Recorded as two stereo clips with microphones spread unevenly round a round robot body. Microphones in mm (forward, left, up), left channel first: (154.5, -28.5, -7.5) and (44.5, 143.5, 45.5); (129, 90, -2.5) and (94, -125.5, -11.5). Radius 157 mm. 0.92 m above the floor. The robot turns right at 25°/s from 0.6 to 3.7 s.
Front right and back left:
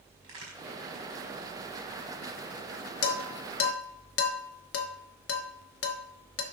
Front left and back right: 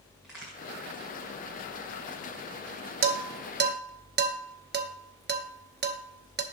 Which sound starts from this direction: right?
Dishes clattering, at 3.0 s.